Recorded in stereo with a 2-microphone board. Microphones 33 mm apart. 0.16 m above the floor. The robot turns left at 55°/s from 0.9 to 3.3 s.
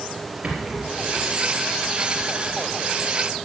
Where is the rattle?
25° right (ahead or behind), 3.5 m; by 1.3 s 45° right (ahead or behind), 3.5 m.